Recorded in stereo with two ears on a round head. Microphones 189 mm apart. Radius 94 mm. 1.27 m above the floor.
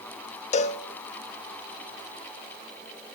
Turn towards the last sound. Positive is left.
turn(degrees=35)  # may be behind; listen again after turning